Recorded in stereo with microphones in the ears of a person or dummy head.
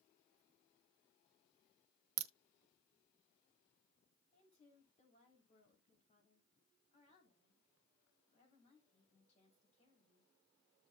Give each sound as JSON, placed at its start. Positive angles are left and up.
{"t": 2.2, "sound": "a crack", "side_deg": -80, "distance_m": 0.8}
{"t": 4.3, "sound": "a woman speaking", "side_deg": 40, "distance_m": 3.5}